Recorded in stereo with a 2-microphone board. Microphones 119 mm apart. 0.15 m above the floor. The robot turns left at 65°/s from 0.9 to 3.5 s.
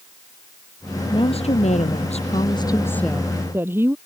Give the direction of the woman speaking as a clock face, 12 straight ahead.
7 o'clock.